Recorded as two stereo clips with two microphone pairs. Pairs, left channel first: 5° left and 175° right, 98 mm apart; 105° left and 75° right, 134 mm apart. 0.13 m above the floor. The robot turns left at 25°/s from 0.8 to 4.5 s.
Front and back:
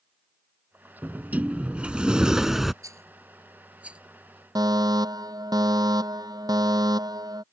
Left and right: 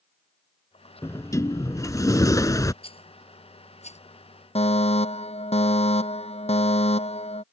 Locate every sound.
1.0 s a sliding door: 140° left; by 2.7 s 95° left
2.8 s a rattle: 135° left; by 4.0 s 110° left
4.5 s a fire alarm: 140° left